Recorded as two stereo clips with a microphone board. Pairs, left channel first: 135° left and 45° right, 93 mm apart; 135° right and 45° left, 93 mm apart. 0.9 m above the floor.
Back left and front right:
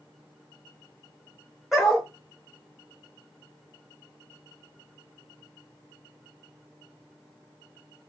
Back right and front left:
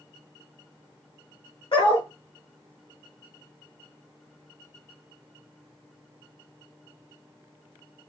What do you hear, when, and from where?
1.7 s a dog barking: 130° right, 1.5 m